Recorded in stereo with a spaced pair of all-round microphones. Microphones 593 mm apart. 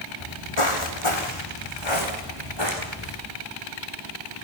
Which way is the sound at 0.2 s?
60° left (ahead or behind).